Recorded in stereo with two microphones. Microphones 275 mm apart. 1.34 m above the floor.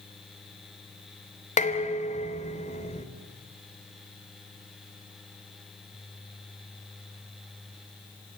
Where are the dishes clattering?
25° left (ahead or behind), 3 m.